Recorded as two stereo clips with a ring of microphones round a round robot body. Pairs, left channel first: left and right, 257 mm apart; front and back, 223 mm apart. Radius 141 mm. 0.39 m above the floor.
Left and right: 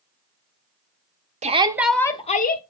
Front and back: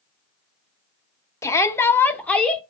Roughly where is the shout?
Ahead right.